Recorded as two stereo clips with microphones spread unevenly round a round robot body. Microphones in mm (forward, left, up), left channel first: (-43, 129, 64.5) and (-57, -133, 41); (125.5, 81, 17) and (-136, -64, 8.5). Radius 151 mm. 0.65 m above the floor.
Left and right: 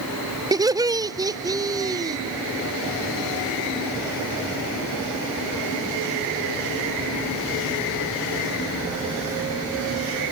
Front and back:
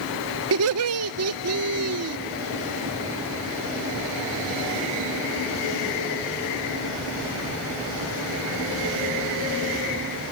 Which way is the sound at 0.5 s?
160° right.